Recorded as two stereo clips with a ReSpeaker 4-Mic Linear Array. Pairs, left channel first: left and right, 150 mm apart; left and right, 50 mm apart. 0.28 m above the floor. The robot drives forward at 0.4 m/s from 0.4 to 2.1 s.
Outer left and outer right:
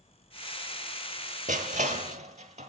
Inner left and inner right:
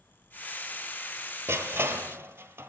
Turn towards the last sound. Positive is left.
turn(degrees=-50)  # may be behind; listen again after turning